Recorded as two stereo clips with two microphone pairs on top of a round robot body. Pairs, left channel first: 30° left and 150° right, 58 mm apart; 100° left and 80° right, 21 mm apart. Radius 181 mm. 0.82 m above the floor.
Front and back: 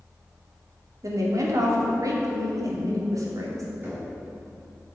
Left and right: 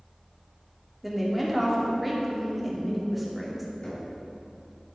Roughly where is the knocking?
Behind left.